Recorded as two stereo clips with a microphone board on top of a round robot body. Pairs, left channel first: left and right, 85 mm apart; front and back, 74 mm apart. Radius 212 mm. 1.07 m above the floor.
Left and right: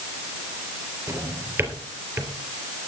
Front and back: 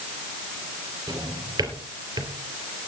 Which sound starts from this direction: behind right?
A drawer, at 1.1 s.